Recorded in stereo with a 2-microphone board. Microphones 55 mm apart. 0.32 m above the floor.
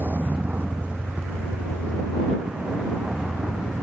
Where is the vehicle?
35° right (ahead or behind); by 3.8 s 10° right (ahead or behind).